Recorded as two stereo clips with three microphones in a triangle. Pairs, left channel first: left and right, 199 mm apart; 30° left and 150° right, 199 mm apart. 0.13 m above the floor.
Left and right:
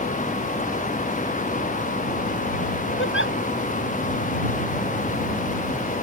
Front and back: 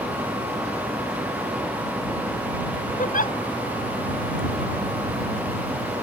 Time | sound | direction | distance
3.0 | a giggle | 80° left | ?